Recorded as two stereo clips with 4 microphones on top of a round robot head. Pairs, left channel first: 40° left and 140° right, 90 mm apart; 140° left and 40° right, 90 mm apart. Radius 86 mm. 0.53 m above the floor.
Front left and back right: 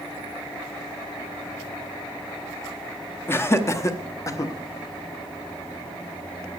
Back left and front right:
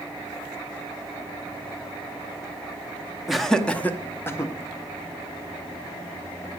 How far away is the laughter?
About 0.9 m.